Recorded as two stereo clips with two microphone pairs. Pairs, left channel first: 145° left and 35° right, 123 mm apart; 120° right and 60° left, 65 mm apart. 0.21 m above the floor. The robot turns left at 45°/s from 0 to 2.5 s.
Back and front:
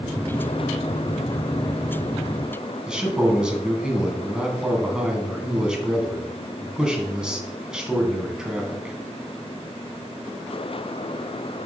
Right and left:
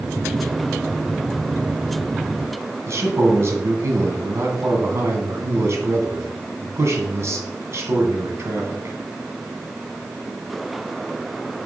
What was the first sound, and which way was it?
A man speaking, 50° left.